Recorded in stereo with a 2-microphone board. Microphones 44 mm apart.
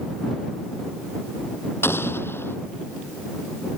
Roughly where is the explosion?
Left.